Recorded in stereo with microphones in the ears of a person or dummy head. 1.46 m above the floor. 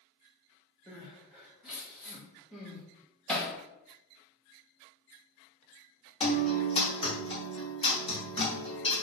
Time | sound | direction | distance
0.9 | crying | 5° right (ahead or behind) | 0.8 m
3.3 | hammering | centre (ahead or behind) | 0.6 m
6.2 | a guitar | 25° left (ahead or behind) | 1.1 m